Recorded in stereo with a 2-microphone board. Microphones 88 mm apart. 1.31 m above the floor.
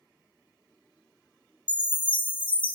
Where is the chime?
15° left (ahead or behind), 1.0 m.